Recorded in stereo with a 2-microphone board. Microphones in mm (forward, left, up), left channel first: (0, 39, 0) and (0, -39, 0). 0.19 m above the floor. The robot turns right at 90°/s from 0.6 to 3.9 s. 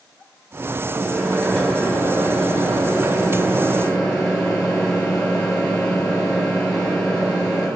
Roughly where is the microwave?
Right.